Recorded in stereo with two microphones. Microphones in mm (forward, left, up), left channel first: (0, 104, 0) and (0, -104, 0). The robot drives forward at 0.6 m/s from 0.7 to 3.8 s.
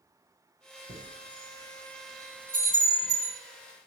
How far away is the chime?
About 2 m.